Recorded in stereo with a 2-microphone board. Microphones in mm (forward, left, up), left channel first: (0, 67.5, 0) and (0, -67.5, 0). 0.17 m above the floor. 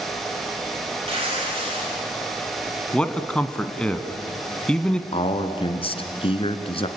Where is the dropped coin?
No dropped coin in this recording.